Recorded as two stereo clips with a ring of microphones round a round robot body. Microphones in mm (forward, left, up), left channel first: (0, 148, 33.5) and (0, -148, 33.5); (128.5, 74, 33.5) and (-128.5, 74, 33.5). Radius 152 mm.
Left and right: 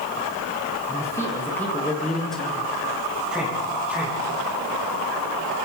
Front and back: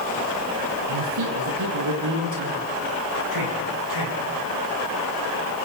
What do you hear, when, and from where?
0.9 s a man speaking: 170° left, 5 m; by 4.2 s 175° right, 10 m